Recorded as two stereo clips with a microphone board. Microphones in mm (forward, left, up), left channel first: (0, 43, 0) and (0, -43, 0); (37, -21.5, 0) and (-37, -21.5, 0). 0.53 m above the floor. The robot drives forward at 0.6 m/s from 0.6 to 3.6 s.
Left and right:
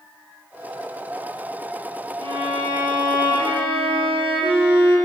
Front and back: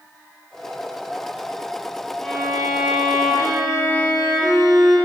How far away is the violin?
About 4 m.